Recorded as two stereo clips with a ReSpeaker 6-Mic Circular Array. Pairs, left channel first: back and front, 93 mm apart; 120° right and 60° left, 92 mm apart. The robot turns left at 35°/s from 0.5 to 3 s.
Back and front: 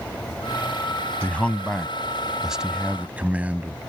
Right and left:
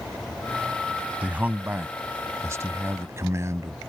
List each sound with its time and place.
1.2 s a man speaking: 125° left; by 3.8 s 60° left